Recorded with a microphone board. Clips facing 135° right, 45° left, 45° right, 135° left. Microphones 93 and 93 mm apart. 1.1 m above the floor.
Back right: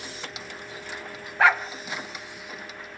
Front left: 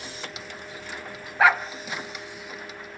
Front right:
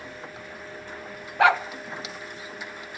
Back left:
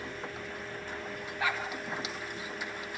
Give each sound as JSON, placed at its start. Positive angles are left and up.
{"t": 1.4, "sound": "a dog barking", "azimuth_deg": -45, "distance_m": 1.5}